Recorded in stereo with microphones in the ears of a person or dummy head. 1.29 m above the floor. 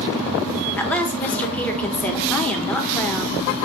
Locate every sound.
0.8 s a woman speaking: centre (ahead or behind), 0.8 m